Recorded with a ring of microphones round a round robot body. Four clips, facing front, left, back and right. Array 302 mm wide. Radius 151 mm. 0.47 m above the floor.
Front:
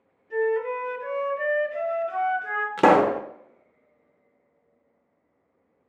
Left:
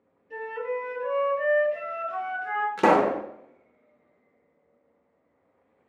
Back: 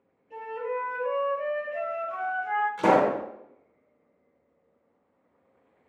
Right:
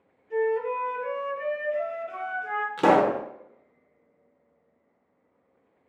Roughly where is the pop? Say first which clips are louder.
Right 1 dB, front 5 dB; ahead.